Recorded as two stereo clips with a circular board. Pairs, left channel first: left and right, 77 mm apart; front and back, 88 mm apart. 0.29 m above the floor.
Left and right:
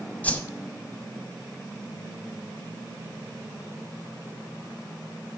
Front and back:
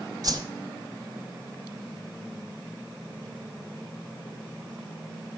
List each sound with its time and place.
0.2 s a whoosh: 155° left, 1.1 m